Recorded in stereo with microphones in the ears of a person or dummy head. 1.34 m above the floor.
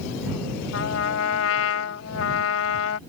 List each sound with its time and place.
0.7 s a trumpet: 80° left